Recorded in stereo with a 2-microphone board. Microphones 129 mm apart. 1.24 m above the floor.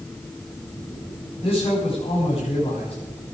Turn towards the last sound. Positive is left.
turn(degrees=50)  # may be behind; listen again after turning